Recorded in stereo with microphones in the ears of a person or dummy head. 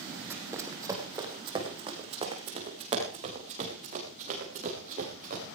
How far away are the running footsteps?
About 3.5 m.